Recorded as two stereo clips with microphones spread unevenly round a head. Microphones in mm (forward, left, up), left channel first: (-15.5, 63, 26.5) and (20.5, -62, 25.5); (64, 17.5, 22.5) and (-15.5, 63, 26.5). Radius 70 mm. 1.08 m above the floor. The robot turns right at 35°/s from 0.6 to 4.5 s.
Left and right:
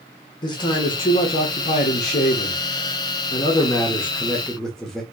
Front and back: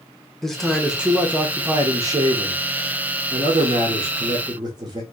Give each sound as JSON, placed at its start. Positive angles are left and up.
{"t": 0.4, "sound": "a man speaking", "azimuth_deg": 55, "distance_m": 1.0}